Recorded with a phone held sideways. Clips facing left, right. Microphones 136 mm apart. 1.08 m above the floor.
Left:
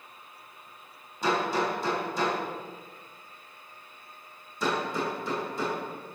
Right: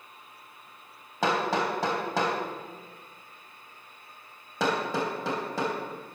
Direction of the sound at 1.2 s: 85° right.